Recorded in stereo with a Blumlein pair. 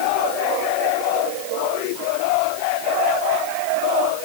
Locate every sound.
Only background noise.